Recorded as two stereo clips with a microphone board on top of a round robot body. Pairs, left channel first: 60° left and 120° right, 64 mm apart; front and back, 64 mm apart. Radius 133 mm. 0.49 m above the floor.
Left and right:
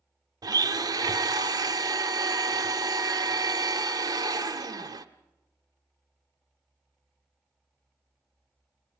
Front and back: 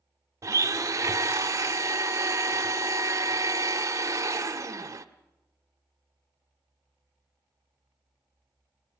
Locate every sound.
0.4 s a blender: 140° right, 1.2 m